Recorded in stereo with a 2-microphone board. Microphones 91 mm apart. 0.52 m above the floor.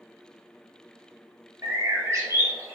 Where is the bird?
30° right (ahead or behind), 0.6 m.